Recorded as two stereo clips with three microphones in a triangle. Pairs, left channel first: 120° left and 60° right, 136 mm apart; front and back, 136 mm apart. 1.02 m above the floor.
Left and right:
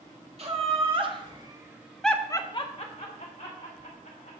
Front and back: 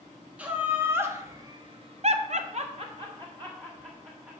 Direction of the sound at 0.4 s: 100° right.